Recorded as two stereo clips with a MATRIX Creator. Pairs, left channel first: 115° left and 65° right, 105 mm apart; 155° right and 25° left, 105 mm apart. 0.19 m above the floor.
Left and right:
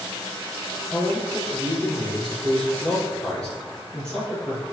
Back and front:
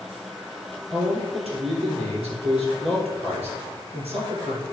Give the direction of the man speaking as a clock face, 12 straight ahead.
11 o'clock.